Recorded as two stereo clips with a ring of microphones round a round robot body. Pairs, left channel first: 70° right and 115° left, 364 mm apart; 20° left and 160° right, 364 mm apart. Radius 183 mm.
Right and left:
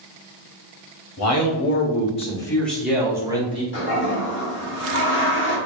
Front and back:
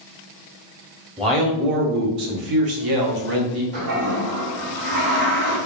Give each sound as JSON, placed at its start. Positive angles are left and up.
{"t": 1.2, "sound": "a man speaking", "azimuth_deg": -85, "distance_m": 0.8}
{"t": 3.7, "sound": "a toilet flushing", "azimuth_deg": -125, "distance_m": 1.4}